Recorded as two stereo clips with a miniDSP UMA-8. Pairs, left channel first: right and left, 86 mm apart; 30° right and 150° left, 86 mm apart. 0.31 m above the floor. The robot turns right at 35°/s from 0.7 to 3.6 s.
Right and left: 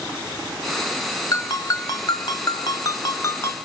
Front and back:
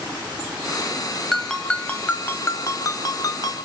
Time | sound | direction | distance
1.3 | a ringtone | 120° right | 1.1 m